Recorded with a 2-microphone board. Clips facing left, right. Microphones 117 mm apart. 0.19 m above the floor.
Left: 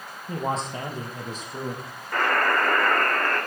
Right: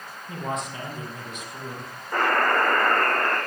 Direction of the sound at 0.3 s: 30° left (ahead or behind).